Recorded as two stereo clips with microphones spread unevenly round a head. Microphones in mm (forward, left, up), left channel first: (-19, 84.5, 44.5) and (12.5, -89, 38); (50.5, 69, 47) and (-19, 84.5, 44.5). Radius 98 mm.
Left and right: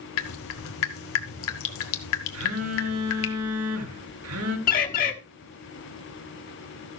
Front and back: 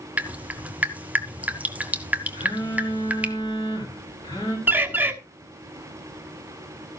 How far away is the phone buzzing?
About 2.5 m.